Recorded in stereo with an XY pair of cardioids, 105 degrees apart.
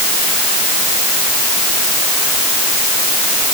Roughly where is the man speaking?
No man speaking in this recording.